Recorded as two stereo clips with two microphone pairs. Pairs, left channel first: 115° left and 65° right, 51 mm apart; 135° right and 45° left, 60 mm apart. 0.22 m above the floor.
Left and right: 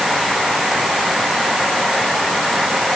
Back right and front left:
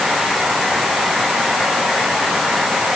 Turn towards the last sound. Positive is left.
No sound to turn to.